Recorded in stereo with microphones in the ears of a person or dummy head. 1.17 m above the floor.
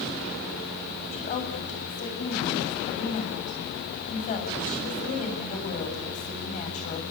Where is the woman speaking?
35° left (ahead or behind), 8.5 m.